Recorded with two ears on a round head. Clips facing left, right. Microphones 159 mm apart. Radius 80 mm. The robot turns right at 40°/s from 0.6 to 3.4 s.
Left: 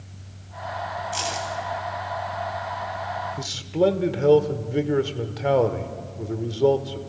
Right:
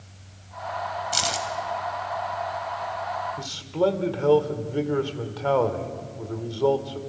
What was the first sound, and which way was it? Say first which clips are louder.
Keys jangling: even; 70° right (ahead or behind).